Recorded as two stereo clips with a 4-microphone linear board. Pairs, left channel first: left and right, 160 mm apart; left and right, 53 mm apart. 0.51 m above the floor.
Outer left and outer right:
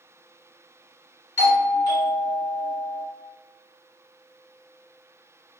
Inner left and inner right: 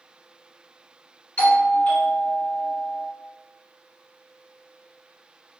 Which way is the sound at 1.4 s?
20° left (ahead or behind).